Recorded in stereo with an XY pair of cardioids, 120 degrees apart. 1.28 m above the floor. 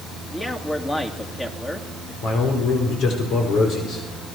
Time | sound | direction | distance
0.3 | a man speaking | 20° left | 3 m
2.2 | a man speaking | 70° left | 5 m